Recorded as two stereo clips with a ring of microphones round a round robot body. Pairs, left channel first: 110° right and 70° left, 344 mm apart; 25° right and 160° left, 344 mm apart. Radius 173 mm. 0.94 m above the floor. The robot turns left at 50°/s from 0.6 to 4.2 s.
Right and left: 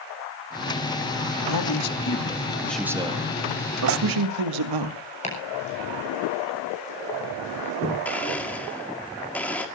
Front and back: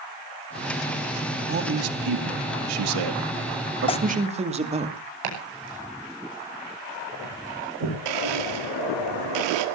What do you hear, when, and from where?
1.5 s a man speaking: 140° right, 2 m; by 4.9 s 85° left, 2 m
3.9 s tearing paper: 45° left, 0.5 m; by 4.0 s 40° left, 0.5 m
5.2 s chopping: 175° left, 6.5 m
8.1 s a blender: 160° left, 2 m